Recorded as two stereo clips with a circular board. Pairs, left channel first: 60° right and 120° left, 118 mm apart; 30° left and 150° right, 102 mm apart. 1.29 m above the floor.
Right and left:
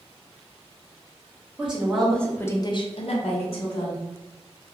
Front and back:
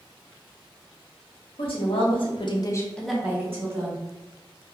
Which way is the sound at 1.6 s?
40° left.